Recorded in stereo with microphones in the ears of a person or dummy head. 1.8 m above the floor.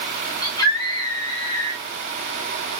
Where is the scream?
25° left (ahead or behind), 1.1 m.